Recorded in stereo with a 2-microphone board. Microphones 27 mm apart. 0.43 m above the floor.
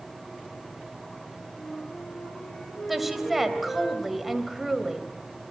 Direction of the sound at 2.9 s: 5° right (ahead or behind).